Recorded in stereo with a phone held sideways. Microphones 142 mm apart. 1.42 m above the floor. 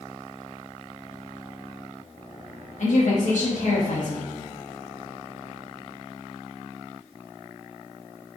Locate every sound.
2.8 s a woman speaking: 65° left (ahead or behind), 1.3 m